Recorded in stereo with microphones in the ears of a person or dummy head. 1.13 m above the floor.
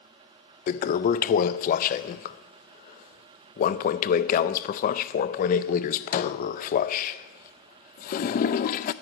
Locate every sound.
0.7 s a toilet flushing: 40° left (ahead or behind), 0.5 m